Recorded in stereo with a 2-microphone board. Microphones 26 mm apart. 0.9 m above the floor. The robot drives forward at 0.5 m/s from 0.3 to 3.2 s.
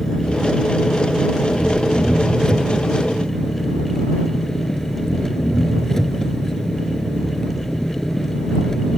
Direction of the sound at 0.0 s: 20° left (ahead or behind).